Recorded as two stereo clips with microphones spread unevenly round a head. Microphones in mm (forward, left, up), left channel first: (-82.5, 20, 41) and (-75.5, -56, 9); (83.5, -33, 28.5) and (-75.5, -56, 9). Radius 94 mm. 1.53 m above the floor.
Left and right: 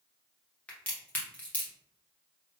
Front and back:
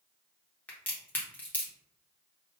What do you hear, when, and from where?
0.7 s a crack: 75° left, 0.7 m